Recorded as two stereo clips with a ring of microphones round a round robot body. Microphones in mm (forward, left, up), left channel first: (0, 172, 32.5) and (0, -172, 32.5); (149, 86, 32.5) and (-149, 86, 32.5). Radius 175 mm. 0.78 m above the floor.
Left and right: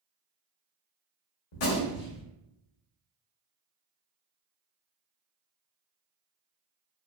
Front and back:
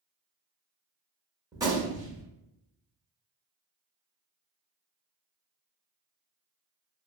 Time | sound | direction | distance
1.5 | a gunshot | 100° left | 0.9 m